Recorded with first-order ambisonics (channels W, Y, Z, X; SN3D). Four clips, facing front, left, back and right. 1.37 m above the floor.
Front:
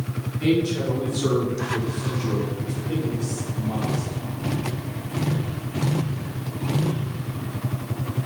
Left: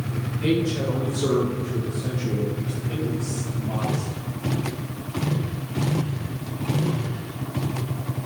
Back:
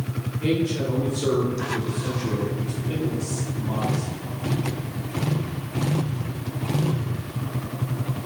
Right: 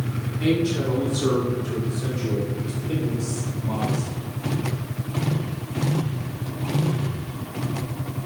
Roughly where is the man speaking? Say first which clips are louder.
Right 1 dB, front 2 dB; ahead right.